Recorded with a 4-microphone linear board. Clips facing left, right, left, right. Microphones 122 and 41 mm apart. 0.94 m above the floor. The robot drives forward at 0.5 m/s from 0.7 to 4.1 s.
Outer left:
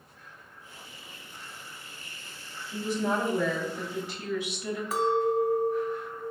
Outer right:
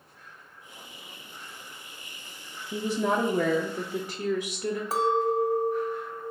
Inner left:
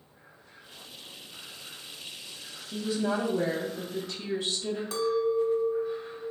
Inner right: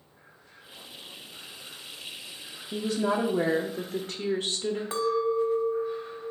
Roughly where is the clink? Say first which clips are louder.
Even, even; right.